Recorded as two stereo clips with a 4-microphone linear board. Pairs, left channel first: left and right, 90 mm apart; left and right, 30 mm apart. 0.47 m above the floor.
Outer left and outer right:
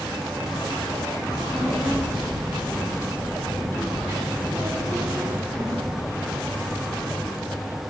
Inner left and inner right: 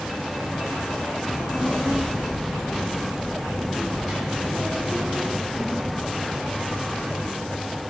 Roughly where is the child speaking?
Right.